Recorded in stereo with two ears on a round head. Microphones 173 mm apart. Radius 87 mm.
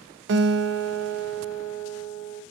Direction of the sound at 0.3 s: 60° right (ahead or behind).